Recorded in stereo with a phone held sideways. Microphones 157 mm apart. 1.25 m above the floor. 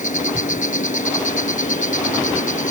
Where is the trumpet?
No trumpet in this recording.